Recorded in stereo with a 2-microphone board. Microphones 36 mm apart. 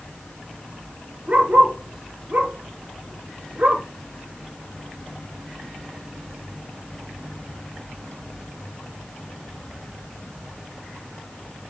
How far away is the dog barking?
About 3.5 m.